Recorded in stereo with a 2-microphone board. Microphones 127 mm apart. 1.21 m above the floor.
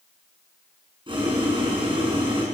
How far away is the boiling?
About 7.5 m.